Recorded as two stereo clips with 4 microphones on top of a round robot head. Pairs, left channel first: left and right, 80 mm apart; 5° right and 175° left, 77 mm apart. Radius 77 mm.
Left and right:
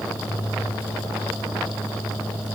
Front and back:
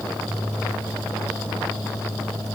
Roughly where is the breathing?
No breathing in this recording.